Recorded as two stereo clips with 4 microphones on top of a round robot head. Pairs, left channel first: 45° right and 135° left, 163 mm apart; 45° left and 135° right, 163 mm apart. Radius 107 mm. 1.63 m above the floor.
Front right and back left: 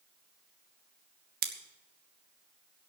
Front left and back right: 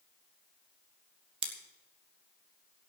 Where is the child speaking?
I don't hear a child speaking.